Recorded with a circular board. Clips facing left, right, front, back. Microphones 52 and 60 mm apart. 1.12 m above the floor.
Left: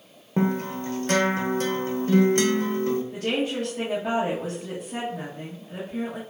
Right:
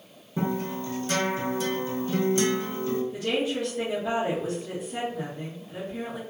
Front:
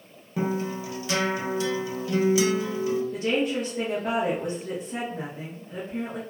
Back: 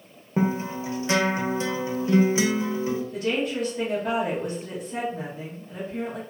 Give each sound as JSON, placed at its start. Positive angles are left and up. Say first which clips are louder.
{"t": 0.4, "sound": "a guitar", "louder": "left 4 dB, back 2 dB", "azimuth_deg": 120, "distance_m": 0.6}
{"t": 3.1, "sound": "a woman speaking", "louder": "left 1 dB, front 1 dB", "azimuth_deg": 60, "distance_m": 1.2}